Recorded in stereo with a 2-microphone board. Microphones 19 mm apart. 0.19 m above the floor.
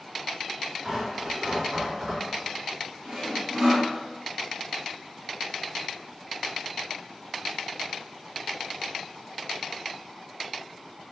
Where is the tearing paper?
30° right (ahead or behind), 1.9 m.